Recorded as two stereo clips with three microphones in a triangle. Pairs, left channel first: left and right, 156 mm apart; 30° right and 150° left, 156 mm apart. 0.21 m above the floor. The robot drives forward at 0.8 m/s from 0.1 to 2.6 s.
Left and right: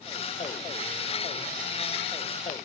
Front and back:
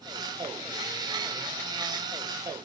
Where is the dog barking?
I don't hear a dog barking.